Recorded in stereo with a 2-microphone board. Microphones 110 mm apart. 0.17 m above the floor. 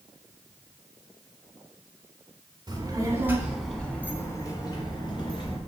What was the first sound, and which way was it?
A child speaking, 40° right (ahead or behind).